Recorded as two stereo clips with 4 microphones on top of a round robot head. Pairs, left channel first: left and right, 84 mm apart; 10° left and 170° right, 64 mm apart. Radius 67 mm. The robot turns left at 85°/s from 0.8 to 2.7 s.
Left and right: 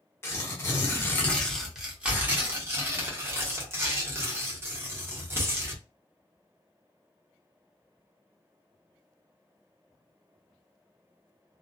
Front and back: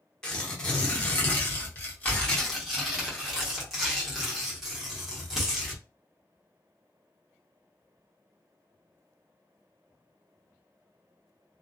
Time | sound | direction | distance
0.2 | tearing paper | 75° left | 1.1 m